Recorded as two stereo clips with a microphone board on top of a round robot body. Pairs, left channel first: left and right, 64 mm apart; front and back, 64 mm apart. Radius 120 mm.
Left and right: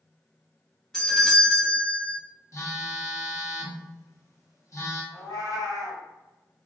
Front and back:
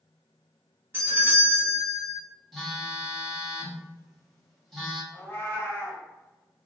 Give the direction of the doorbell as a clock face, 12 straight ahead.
6 o'clock.